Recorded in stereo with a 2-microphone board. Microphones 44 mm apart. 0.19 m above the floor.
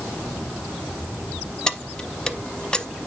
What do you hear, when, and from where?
1.7 s keys jangling: 20° left (ahead or behind), 0.7 m